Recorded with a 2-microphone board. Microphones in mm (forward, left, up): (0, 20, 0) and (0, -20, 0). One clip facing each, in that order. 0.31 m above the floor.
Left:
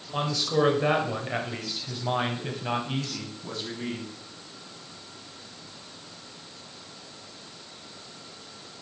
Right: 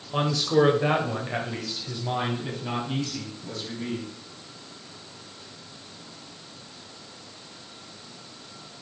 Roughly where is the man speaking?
Centre.